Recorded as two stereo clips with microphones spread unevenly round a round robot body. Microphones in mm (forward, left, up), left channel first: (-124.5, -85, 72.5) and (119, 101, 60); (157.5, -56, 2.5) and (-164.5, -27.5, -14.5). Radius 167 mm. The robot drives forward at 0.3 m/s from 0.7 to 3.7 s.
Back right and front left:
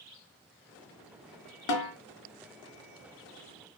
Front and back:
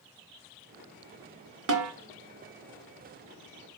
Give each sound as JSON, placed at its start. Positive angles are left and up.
{"t": 1.7, "sound": "a snare drum", "azimuth_deg": -140, "distance_m": 0.5}